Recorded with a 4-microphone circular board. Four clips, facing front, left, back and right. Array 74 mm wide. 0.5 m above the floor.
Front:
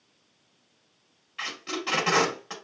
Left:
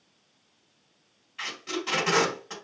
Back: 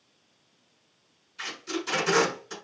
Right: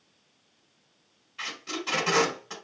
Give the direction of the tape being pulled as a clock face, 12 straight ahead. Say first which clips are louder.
Left 2 dB, even; 12 o'clock.